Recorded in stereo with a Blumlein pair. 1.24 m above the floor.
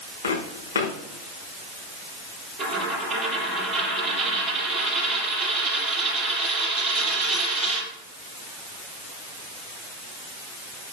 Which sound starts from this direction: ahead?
A dropped coin, at 2.6 s.